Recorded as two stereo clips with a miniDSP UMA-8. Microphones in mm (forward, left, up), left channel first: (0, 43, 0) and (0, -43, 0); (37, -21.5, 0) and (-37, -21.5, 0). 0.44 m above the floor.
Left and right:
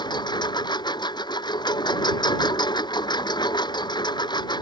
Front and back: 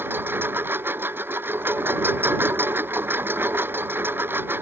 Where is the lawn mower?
120° left.